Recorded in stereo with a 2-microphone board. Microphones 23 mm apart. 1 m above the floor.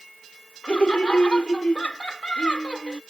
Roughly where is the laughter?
Left.